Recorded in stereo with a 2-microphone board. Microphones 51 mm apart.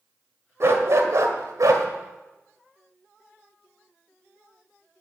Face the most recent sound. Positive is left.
turn(degrees=-85)